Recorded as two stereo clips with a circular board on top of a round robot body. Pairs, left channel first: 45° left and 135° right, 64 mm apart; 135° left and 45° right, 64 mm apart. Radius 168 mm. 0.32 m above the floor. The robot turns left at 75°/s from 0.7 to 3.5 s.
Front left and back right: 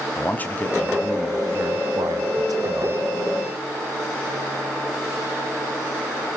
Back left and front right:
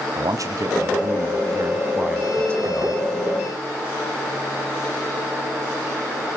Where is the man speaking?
20° right, 4 m; by 3.0 s 170° left, 4 m.